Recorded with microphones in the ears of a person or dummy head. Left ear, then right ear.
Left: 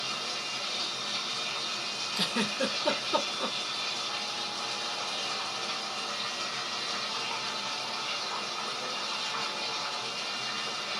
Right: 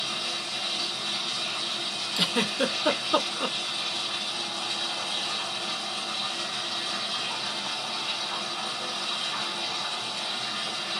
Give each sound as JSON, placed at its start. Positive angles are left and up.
{"t": 0.0, "sound": "running water", "side_deg": -55, "distance_m": 1.7}
{"t": 2.2, "sound": "a giggle", "side_deg": -35, "distance_m": 0.9}